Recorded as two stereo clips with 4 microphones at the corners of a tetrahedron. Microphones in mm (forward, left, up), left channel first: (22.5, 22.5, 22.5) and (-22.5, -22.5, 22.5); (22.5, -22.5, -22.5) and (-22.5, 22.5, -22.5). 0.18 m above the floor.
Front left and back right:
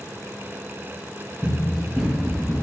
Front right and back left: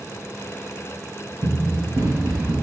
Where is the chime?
I don't hear a chime.